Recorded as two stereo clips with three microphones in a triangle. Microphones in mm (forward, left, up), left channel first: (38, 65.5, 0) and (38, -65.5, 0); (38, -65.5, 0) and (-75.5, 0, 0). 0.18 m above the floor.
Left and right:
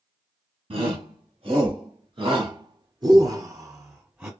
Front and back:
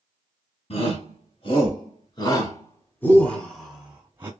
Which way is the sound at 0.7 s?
55° right.